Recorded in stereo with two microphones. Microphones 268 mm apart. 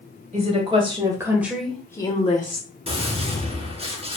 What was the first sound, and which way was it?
A woman speaking, 25° right (ahead or behind).